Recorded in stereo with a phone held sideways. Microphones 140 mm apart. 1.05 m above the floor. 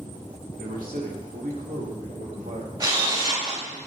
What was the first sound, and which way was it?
A man speaking, 85° right.